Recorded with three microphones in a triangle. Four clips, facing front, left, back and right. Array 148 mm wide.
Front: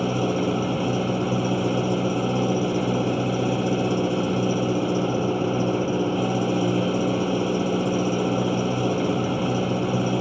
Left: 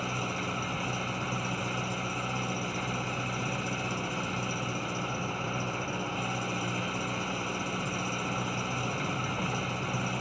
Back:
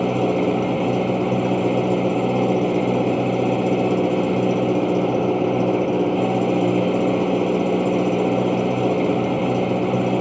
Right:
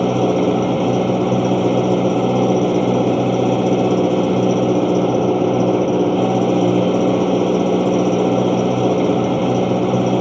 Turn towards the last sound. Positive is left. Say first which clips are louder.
# right 19 dB, back 4 dB
turn(degrees=-110)